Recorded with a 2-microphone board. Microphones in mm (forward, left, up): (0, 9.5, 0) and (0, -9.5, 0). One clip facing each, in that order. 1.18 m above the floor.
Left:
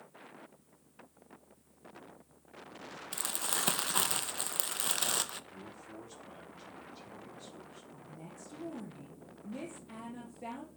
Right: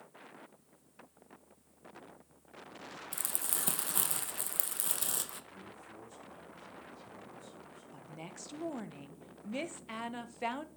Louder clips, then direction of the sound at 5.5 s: Left 2 dB; 45° left (ahead or behind).